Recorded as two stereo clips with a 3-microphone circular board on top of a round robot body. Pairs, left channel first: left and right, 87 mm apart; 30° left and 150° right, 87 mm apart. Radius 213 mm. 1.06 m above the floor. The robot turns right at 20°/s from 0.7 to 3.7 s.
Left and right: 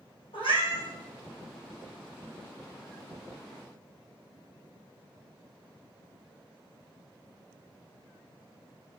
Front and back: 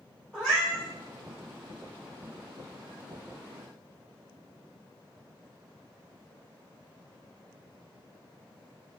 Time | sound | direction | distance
0.3 | a cat meowing | 115° left | 2.5 m